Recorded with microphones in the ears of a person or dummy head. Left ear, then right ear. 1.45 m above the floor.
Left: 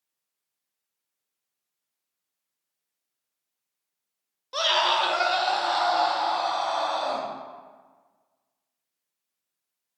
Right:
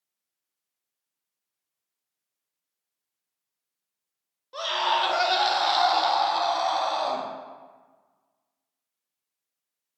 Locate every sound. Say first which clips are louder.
4.5 s a scream: left 3 dB; 30° left (ahead or behind), 0.7 m; by 7.3 s 60° right (ahead or behind), 2 m